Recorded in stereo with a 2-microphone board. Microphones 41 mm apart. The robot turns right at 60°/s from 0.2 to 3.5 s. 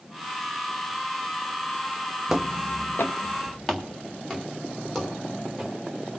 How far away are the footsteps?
About 0.6 m.